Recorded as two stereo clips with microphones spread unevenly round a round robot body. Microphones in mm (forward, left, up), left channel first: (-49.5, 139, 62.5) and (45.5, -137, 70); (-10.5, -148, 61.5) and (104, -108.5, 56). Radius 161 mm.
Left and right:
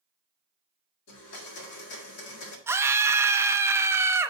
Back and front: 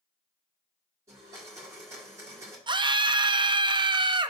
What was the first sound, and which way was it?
A blender, 85° left.